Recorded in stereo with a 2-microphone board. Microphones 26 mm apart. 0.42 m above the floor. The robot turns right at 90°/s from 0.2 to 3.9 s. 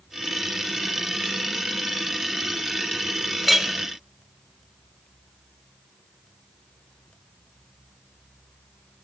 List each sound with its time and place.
3.4 s a clink: centre (ahead or behind), 0.7 m; by 3.7 s 15° right (ahead or behind), 0.7 m